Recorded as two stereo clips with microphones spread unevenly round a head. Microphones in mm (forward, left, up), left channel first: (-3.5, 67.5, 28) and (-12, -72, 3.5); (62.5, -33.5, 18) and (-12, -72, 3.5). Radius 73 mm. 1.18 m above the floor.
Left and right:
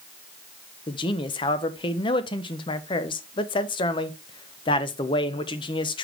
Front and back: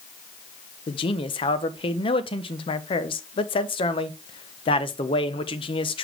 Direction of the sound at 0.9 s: 30° left.